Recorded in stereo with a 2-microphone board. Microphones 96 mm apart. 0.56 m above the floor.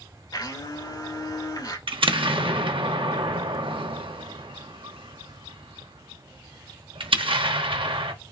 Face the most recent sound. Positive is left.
turn(degrees=-75)  # may be behind; listen again after turning